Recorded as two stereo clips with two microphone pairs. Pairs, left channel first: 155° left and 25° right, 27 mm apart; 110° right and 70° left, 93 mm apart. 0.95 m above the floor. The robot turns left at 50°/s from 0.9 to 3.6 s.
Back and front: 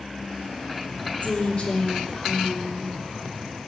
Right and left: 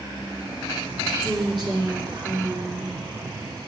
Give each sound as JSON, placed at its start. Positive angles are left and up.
{"t": 1.2, "sound": "a woman speaking", "azimuth_deg": 120, "distance_m": 3.0}